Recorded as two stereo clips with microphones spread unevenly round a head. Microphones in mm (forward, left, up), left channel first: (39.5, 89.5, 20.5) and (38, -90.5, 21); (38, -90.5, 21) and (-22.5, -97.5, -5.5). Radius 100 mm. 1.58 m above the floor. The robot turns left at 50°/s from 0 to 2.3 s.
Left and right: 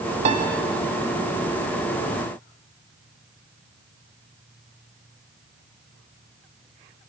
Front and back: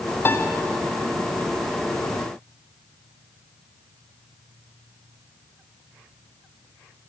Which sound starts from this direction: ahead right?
A piano, at 0.2 s.